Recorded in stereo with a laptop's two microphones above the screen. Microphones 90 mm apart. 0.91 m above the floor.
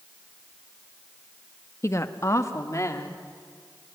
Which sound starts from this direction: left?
A woman speaking, at 1.8 s.